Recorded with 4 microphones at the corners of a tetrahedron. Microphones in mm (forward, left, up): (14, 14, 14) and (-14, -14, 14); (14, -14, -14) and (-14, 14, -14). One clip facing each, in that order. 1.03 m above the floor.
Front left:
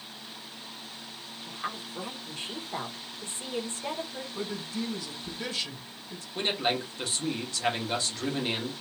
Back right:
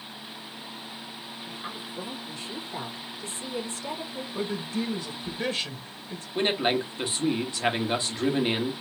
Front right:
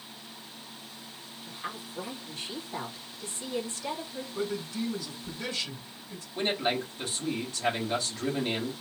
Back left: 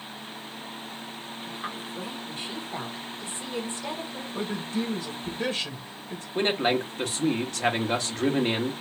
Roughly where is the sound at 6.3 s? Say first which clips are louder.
Back right 4 dB, back left 5 dB; behind.